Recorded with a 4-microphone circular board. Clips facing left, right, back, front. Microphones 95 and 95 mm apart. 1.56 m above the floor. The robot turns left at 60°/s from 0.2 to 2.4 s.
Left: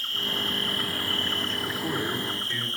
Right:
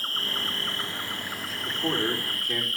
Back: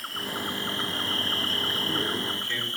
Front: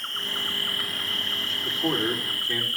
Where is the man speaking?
20° right, 4.5 m; by 2.7 s 65° right, 4.5 m.